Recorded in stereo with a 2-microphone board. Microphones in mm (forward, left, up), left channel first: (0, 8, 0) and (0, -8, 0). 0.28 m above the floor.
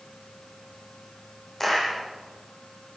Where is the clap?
20° left (ahead or behind), 9 m.